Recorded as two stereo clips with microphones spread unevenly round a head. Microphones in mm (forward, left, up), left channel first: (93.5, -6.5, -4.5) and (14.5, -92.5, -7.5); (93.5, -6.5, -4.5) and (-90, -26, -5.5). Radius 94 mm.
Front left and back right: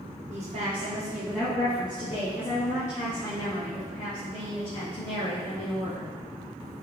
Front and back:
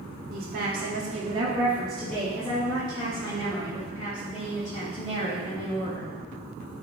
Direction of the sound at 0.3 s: 145° right.